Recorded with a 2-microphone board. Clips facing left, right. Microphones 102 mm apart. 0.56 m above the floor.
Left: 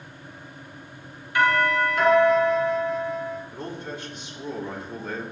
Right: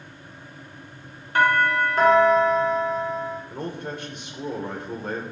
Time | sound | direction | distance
1.4 | a doorbell | 45° right (ahead or behind) | 2.5 m
3.5 | a man speaking | 60° right (ahead or behind) | 1.6 m